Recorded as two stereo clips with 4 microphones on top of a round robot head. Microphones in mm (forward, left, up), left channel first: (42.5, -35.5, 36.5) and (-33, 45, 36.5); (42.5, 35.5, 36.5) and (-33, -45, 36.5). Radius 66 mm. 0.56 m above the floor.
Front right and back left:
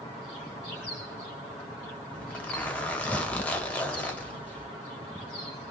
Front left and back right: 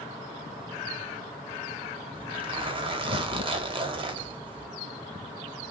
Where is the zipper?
120° right, 1.1 m.